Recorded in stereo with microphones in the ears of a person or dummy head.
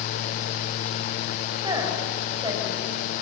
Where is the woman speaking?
25° right (ahead or behind), 4 m.